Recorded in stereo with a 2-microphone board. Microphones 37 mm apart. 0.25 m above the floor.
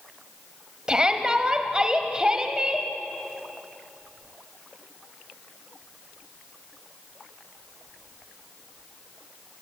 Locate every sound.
0.9 s a shout: 20° right (ahead or behind), 1.3 m